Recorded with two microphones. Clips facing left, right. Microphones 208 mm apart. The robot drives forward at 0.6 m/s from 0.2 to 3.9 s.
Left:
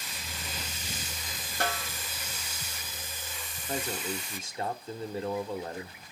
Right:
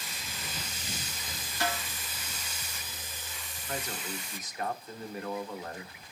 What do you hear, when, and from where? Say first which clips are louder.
1.6 s a snare drum: left 1 dB; 55° left (ahead or behind), 2 m
3.7 s a man speaking: left 4 dB; 30° left (ahead or behind), 1.4 m